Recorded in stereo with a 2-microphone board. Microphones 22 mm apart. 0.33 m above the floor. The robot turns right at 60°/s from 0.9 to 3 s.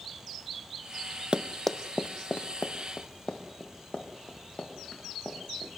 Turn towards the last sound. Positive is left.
turn(degrees=40)  # may be behind; listen again after turning